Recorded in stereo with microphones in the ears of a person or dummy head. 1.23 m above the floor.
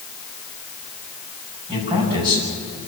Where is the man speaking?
25° right (ahead or behind), 7.5 m.